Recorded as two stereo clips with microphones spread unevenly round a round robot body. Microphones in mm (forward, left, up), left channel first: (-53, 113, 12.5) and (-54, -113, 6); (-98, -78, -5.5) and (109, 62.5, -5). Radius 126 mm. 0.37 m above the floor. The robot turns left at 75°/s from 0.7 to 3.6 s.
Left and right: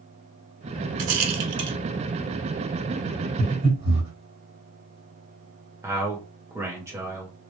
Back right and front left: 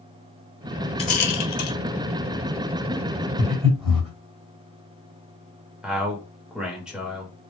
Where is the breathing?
45° right, 1.9 m; by 4.1 s 60° right, 1.9 m.